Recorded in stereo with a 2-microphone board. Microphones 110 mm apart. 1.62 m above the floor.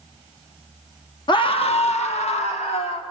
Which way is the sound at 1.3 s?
45° left (ahead or behind).